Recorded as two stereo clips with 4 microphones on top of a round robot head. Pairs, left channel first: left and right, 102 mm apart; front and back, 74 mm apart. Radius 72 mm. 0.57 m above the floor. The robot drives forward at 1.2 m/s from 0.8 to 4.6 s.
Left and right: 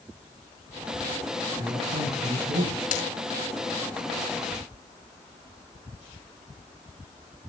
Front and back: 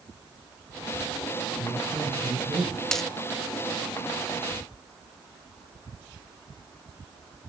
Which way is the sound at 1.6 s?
95° right.